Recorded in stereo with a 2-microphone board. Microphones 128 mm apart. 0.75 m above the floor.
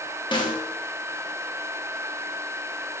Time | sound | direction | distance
0.3 | a snare drum | 35° left (ahead or behind) | 0.7 m